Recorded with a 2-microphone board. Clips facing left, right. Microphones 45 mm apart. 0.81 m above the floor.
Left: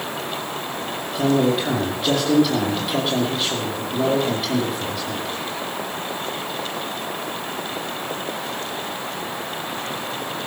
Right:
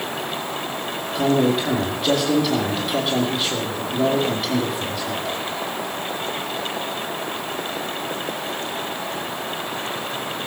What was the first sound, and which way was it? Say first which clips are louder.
A man speaking: even; centre (ahead or behind).